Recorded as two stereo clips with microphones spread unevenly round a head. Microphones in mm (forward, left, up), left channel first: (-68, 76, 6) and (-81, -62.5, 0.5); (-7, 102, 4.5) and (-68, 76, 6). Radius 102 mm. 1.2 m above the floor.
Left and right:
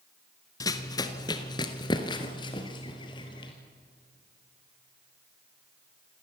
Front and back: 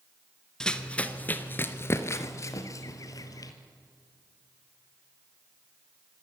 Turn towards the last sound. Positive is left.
turn(degrees=25)